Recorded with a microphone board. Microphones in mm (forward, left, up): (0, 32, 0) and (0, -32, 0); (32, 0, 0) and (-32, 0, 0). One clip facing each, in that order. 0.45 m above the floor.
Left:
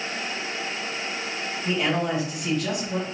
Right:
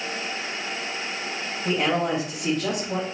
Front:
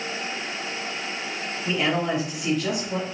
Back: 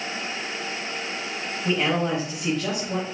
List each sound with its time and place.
1.6 s a man speaking: 130° right, 2.5 m